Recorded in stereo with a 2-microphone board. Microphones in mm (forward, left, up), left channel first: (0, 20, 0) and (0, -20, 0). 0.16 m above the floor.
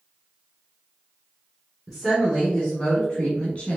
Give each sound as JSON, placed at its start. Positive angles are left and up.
{"t": 1.9, "sound": "a woman speaking", "side_deg": 10, "distance_m": 1.4}